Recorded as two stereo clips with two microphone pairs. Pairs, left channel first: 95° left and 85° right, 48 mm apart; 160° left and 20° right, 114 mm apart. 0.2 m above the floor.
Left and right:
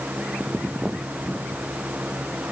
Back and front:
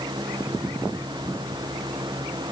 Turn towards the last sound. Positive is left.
No sound to turn to.